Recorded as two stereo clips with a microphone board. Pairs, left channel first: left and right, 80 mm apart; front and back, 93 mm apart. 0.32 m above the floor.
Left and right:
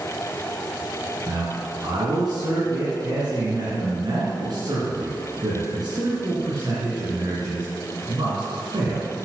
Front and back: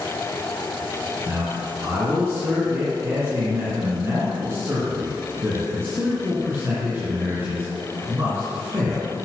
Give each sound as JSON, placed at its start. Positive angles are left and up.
{"t": 1.3, "sound": "a man speaking", "azimuth_deg": -120, "distance_m": 4.0}